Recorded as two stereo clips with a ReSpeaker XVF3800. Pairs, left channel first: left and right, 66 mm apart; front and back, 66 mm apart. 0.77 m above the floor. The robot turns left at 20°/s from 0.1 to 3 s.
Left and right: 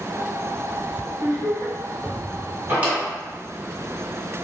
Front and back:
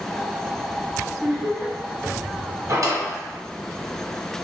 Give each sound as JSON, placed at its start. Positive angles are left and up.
{"t": 1.2, "sound": "laughter", "azimuth_deg": -90, "distance_m": 1.1}
{"t": 2.7, "sound": "a drawer", "azimuth_deg": -145, "distance_m": 1.4}